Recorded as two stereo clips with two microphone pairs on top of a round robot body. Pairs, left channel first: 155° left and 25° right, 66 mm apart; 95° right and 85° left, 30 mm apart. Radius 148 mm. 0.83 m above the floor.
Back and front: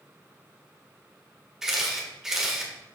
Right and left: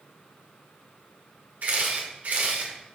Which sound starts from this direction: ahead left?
A camera shutter, at 1.6 s.